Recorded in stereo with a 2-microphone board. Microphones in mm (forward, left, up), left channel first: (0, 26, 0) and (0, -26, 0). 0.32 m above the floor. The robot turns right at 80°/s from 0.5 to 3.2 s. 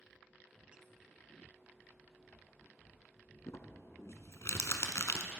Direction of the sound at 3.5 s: 80° left.